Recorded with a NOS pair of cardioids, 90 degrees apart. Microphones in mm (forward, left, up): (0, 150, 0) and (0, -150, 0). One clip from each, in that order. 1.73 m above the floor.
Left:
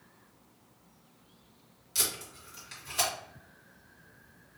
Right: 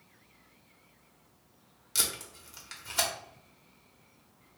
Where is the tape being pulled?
45° right, 1.4 m.